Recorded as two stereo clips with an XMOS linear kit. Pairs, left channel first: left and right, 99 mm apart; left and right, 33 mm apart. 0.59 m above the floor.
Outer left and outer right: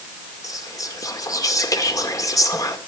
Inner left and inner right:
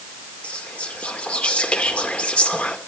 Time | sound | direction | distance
0.4 | whispering | 35° left (ahead or behind) | 2 m